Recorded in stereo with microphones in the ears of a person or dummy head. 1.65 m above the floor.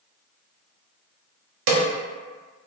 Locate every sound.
1.7 s a snare drum: 65° right (ahead or behind), 0.7 m